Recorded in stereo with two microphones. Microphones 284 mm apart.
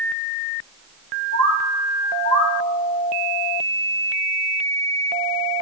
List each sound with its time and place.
1.3 s a bird: 55° right (ahead or behind), 0.6 m